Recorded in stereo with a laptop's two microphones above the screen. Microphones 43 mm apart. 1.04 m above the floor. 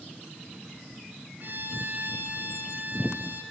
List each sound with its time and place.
1.4 s a violin: 45° right (ahead or behind), 6.5 m